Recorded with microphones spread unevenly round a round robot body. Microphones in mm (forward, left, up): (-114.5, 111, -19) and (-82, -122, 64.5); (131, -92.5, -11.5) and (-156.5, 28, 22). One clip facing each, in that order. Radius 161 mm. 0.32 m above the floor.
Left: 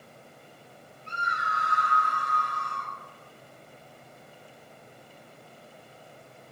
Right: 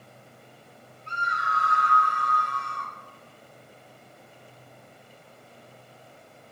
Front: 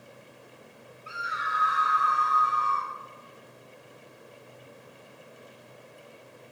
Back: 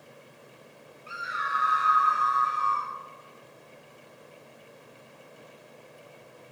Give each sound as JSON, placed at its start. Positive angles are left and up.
{"t": 1.1, "sound": "a scream", "azimuth_deg": -90, "distance_m": 1.6}